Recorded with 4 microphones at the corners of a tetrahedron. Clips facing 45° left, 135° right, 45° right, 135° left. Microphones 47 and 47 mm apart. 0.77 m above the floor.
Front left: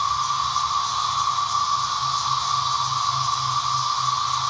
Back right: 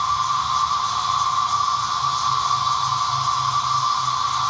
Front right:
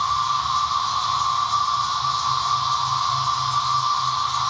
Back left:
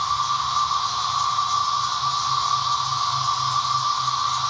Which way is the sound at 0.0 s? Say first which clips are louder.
Back right 2 dB, front right 1 dB; 120° right.